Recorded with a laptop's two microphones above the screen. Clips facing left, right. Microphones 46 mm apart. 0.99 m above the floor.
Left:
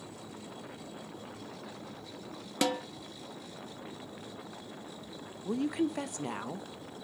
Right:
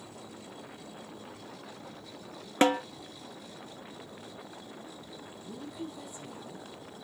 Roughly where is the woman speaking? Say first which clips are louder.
Left 11 dB; left.